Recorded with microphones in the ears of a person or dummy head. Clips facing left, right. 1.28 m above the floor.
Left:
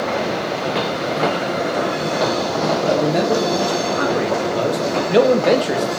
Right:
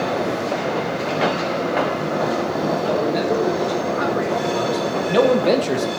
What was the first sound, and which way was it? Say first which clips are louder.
A man speaking: left 4 dB; 60° left (ahead or behind).